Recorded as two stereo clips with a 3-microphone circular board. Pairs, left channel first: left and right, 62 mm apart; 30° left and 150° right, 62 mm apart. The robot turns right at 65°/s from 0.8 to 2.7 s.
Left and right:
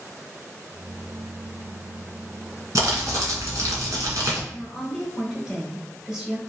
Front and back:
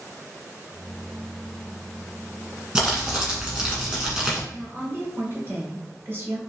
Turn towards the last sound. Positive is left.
turn(degrees=-165)